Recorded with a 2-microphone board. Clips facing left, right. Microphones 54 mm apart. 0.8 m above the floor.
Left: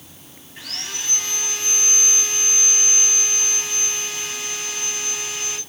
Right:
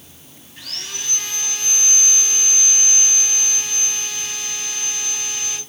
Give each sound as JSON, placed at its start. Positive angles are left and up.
{"t": 0.6, "sound": "sawing", "side_deg": 20, "distance_m": 2.5}